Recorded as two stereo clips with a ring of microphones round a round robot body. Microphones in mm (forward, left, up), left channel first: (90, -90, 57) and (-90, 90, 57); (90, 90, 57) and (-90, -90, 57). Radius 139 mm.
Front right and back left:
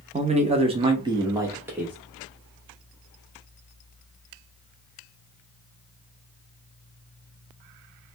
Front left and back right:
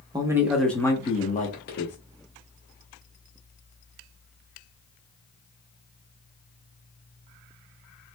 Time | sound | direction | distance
0.1 | a man speaking | 165° left | 0.8 m